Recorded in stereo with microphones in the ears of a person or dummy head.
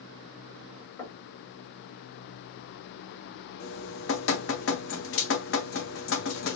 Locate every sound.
1.0 s knocking: 15° left (ahead or behind), 1.3 m
3.6 s dripping: 60° left (ahead or behind), 0.7 m